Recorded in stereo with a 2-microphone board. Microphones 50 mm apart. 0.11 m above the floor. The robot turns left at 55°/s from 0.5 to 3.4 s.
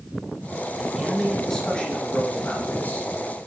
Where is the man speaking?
160° right, 1.8 m; by 3.1 s 70° left, 1.8 m.